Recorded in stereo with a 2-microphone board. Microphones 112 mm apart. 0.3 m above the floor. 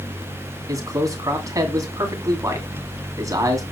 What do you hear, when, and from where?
0.7 s a man speaking: 30° right (ahead or behind), 2.5 m